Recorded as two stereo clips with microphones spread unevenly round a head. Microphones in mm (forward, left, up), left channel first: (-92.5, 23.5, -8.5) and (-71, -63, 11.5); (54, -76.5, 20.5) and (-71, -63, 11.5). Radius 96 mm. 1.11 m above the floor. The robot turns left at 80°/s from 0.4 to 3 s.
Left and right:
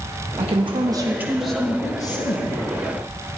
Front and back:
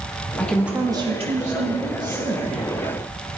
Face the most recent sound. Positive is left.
turn(degrees=70)